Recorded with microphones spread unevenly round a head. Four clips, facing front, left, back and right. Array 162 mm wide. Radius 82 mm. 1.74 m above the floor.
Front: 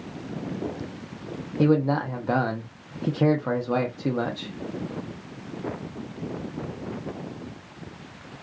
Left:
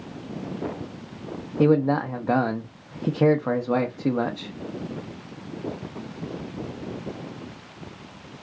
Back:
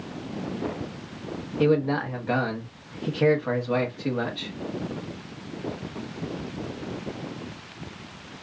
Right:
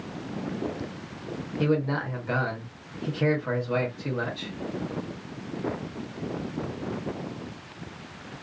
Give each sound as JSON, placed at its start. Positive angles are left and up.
{"t": 1.6, "sound": "a man speaking", "azimuth_deg": 60, "distance_m": 0.6}